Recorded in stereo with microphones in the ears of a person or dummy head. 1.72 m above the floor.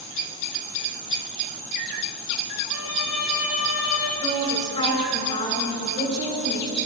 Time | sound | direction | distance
2.7 | a violin | 80° left | 5.5 m
4.2 | a woman speaking | 35° left (ahead or behind) | 8.5 m